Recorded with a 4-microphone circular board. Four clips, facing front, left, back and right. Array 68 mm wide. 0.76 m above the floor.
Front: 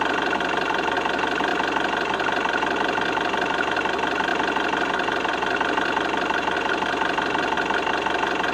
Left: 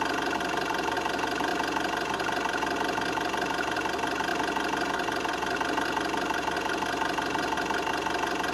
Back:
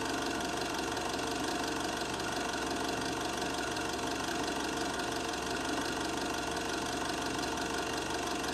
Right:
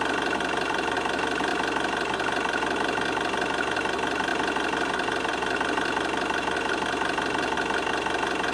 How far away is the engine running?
About 0.7 m.